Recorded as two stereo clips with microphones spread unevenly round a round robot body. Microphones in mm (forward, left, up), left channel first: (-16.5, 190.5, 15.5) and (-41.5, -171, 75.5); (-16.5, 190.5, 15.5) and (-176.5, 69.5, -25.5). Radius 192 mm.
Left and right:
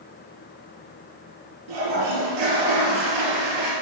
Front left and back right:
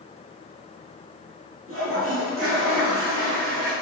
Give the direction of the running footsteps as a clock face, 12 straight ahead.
I don't hear running footsteps.